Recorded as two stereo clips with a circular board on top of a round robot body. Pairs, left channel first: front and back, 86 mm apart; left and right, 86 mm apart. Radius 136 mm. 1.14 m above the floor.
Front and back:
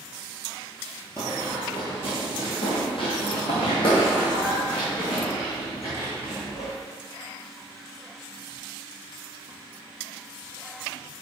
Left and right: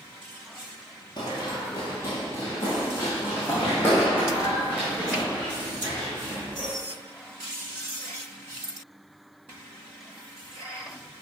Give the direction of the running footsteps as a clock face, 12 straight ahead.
10 o'clock.